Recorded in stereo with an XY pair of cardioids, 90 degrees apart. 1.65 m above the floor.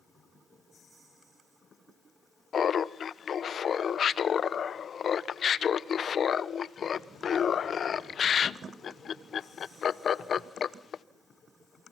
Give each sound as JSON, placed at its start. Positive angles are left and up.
{"t": 2.5, "sound": "laughter", "azimuth_deg": 55, "distance_m": 1.0}